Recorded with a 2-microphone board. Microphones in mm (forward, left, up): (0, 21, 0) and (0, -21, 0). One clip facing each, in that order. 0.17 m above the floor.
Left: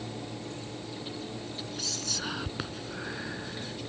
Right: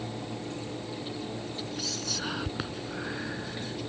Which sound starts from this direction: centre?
Whispering, at 1.8 s.